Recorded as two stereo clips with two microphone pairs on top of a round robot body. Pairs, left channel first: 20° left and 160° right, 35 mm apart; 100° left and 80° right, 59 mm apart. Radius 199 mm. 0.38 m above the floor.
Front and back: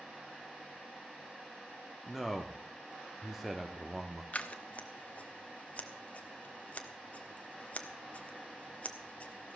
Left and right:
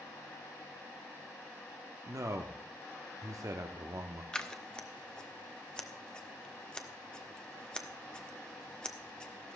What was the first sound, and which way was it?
A man speaking, 70° right.